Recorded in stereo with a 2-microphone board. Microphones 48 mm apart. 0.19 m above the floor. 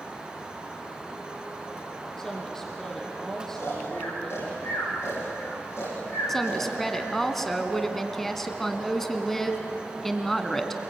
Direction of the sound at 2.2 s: 10° left (ahead or behind).